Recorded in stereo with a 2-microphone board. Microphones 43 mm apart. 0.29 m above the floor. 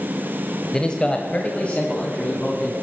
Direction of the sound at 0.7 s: 20° left (ahead or behind).